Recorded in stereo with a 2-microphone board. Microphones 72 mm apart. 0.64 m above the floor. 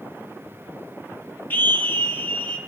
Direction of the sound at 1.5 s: 25° left (ahead or behind).